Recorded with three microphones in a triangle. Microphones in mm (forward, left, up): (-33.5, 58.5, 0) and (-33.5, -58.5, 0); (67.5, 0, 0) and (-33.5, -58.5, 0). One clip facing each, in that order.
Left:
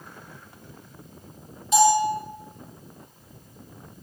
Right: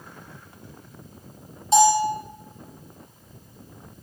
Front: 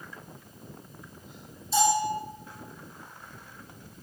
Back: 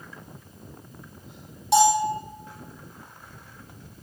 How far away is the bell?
About 6 m.